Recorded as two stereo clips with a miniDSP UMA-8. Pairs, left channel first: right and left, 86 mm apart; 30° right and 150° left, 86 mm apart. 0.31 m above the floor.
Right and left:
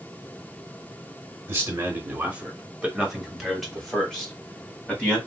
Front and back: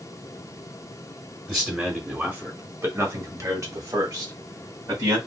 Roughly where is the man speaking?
Left.